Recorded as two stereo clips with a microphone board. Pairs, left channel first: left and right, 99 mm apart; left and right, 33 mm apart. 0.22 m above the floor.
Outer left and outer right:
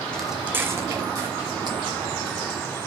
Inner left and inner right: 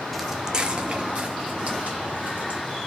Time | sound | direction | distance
0.1 | footsteps | 10° left (ahead or behind) | 0.5 m